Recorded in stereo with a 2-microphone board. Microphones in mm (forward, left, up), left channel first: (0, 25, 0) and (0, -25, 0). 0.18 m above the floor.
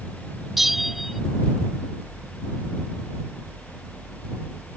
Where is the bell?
Centre (ahead or behind).